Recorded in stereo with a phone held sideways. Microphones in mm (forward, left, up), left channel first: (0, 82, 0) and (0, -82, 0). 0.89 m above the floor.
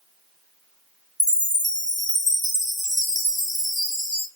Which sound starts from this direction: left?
A chime, at 1.2 s.